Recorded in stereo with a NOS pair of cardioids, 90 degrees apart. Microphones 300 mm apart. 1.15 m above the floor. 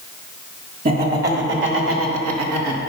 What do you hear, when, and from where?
0.8 s laughter: 30° right, 3 m; by 2.8 s 70° right, 1.9 m